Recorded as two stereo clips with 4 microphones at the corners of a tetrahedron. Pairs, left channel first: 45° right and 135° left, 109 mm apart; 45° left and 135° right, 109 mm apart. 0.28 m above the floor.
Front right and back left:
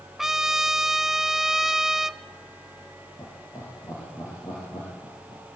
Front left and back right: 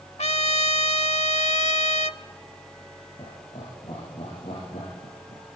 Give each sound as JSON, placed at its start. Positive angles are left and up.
{"t": 0.2, "sound": "a trumpet", "azimuth_deg": 50, "distance_m": 0.6}
{"t": 3.2, "sound": "laughter", "azimuth_deg": 10, "distance_m": 9.0}